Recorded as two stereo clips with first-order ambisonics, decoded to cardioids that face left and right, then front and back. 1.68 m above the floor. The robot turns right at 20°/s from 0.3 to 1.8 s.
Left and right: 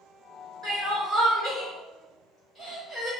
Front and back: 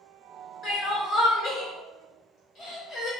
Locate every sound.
0.6 s crying: 40° right, 1.4 m; by 3.1 s 15° right, 1.4 m